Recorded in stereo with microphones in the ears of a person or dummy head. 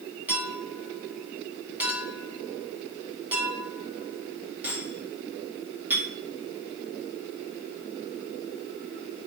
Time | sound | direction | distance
0.3 | a clink | 15° right (ahead or behind) | 1.6 m